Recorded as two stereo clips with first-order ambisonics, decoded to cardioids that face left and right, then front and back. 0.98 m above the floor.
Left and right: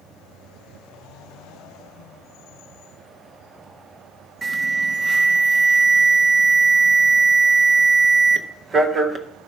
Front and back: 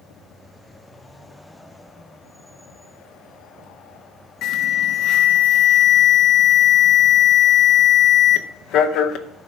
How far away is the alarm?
About 0.7 m.